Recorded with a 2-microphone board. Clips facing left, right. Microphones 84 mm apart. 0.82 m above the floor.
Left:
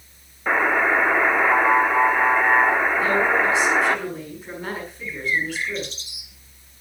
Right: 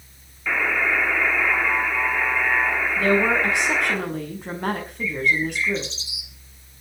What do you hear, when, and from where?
0.5 s a buzzer: 40° left (ahead or behind), 1.6 m
3.0 s a woman speaking: 60° right (ahead or behind), 5.5 m
5.0 s a bird: 55° left (ahead or behind), 1.2 m